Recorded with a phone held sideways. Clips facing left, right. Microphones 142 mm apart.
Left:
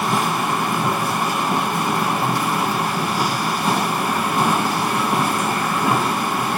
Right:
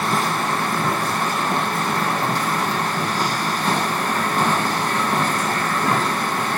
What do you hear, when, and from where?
0.0 s a machine running: 10° left (ahead or behind), 1.1 m